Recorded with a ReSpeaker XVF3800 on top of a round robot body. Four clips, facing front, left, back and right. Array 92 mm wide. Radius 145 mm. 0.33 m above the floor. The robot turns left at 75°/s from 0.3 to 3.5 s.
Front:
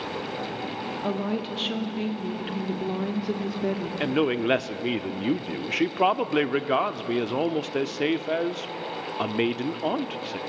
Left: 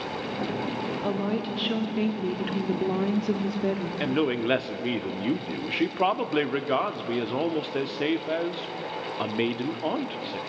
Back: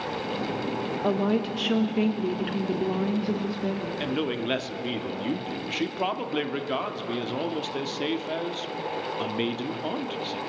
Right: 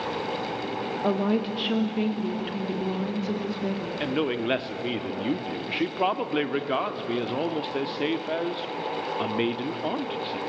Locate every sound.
1.0 s a woman speaking: 125° right, 1.4 m; by 3.9 s 50° left, 1.4 m
4.0 s a man speaking: 10° left, 1.0 m